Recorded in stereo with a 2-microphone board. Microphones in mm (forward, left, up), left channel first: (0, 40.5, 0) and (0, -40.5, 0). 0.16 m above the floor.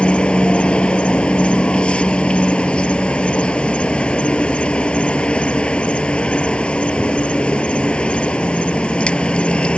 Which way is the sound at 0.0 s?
15° left (ahead or behind).